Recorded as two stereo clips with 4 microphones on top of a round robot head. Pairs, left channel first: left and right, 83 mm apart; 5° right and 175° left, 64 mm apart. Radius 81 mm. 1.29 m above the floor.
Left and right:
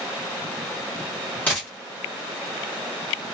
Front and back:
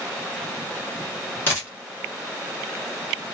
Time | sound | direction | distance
1.5 | a dropped coin | 20° left | 0.9 m